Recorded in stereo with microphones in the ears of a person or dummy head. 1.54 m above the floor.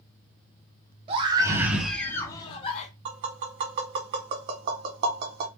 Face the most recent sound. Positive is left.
turn(degrees=-25)  # may be behind; listen again after turning